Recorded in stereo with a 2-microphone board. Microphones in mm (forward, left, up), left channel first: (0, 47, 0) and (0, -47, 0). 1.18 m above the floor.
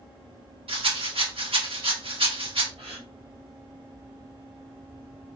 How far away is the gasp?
About 1.8 m.